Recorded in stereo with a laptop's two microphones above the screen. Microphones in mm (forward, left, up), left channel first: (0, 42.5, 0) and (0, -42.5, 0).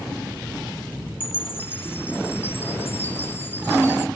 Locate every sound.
1.2 s a chime: 25° left (ahead or behind), 0.7 m